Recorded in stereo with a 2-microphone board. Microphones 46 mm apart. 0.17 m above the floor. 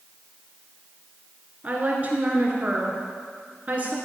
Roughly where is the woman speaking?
Right.